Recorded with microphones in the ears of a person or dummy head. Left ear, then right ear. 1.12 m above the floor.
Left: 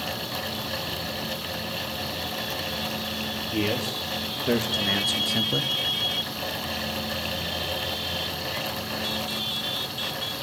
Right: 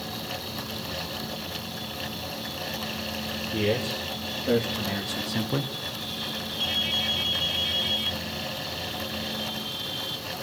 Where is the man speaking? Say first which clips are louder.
Right 1 dB; 75° left (ahead or behind), 3 m; by 5.7 s 20° right (ahead or behind), 1.0 m.